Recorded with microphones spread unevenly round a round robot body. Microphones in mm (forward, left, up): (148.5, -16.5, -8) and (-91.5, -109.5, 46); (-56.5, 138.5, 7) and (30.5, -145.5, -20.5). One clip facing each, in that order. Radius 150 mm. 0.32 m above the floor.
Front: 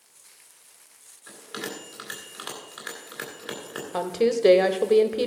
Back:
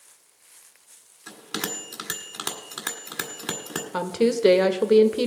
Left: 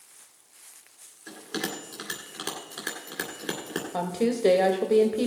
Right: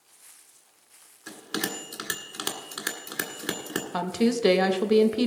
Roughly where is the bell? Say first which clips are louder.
Back 2 dB, even; behind right.